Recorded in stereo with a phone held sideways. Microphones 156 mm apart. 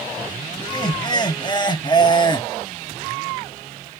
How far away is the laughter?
About 1.7 m.